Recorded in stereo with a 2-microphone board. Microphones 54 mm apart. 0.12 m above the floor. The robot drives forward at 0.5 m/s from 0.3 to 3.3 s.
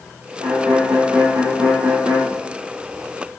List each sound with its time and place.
0.4 s a violin: 65° right (ahead or behind), 4 m; by 2.3 s 75° right (ahead or behind), 3.5 m